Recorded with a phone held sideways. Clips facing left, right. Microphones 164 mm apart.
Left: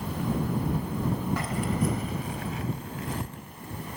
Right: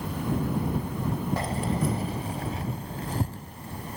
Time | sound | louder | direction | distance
1.4 | keys jangling | even | 30° right (ahead or behind) | ?